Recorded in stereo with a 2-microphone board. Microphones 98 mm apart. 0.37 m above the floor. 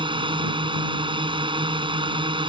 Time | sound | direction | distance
0.0 | a drone | 60° right (ahead or behind) | ?